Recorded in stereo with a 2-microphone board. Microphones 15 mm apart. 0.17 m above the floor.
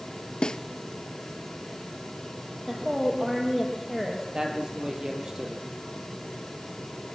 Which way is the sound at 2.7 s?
10° right (ahead or behind).